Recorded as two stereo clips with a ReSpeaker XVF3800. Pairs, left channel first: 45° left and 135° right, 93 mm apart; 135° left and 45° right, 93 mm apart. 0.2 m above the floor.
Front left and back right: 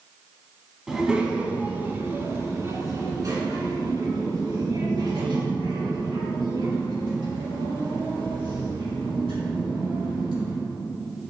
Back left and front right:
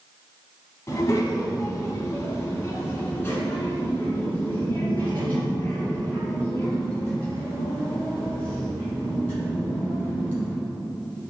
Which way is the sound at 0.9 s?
145° left.